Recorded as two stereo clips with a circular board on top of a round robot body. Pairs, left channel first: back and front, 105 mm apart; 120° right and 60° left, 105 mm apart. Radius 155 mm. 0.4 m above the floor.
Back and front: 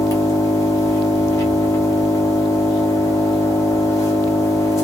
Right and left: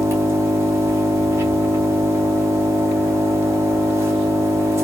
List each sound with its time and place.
0.0 s an engine running: 125° left, 1.2 m